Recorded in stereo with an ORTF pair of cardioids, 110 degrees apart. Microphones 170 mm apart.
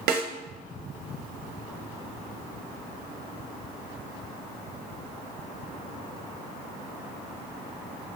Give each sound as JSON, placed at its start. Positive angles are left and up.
{"t": 0.1, "sound": "a snare drum", "azimuth_deg": -70, "distance_m": 0.9}